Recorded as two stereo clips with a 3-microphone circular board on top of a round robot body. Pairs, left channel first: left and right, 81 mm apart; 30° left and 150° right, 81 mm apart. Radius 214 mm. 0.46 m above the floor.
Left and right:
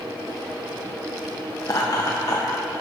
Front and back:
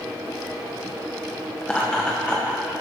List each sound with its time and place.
1.6 s laughter: 100° left, 1.1 m